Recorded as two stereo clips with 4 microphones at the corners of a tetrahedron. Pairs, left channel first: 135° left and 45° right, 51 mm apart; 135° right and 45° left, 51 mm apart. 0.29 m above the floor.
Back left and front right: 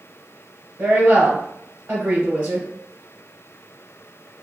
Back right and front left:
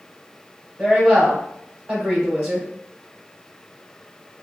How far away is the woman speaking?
About 1.2 m.